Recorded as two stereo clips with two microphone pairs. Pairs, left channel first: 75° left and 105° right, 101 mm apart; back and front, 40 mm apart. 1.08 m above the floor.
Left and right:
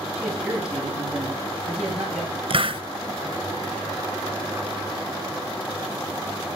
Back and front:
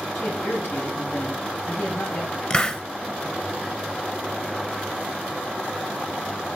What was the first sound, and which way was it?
A man speaking, 170° left.